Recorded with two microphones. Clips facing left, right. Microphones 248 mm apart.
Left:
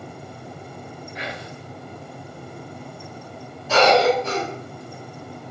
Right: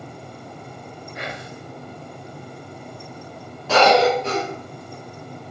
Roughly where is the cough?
Right.